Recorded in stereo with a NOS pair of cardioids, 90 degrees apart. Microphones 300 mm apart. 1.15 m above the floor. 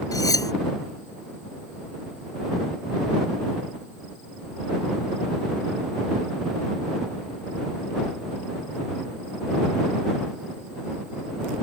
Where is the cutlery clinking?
10° left.